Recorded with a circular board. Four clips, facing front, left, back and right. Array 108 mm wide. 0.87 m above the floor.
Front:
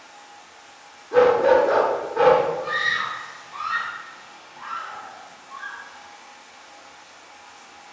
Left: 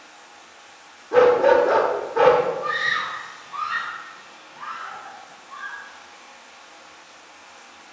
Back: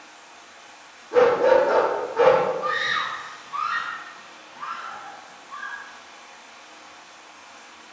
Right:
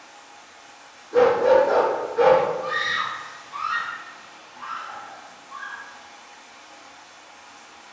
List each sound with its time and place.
0.0 s running water: straight behind, 1.1 m
1.1 s a dog barking: 85° left, 0.5 m
2.6 s a scream: 150° left, 1.3 m